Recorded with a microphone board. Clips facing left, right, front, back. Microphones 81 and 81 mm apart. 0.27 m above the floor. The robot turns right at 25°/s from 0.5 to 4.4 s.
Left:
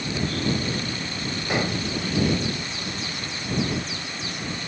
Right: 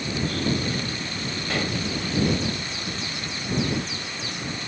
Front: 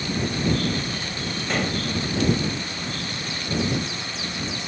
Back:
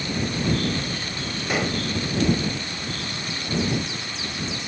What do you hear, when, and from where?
1.5 s dishes clattering: 110° left; by 1.9 s 120° left